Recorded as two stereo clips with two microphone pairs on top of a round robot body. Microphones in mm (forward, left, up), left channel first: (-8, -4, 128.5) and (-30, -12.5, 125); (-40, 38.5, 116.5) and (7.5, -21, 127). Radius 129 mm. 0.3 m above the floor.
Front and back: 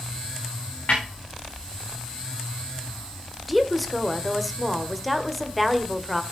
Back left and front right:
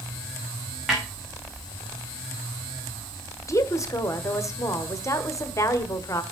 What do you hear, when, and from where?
0.9 s a snare drum: 35° left, 6.5 m
3.5 s a woman speaking: 115° left, 1.9 m